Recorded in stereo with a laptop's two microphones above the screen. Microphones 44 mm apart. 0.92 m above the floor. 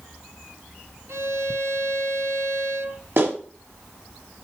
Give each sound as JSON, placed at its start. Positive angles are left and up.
{"t": 1.1, "sound": "a violin", "side_deg": -75, "distance_m": 2.5}
{"t": 3.2, "sound": "a clap", "side_deg": -65, "distance_m": 5.5}